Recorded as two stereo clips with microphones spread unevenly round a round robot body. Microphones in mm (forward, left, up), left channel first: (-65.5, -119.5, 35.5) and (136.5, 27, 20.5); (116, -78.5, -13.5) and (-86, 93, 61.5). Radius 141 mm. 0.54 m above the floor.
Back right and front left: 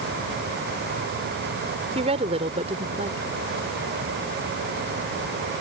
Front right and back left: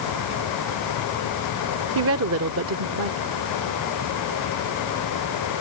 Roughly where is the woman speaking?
Left.